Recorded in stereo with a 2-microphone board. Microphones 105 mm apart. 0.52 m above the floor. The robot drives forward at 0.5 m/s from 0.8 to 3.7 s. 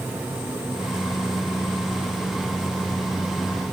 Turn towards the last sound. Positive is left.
No sound to turn to.